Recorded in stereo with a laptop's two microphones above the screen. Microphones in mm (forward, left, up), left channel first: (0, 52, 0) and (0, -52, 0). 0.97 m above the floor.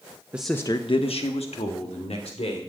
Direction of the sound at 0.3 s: 15° right (ahead or behind).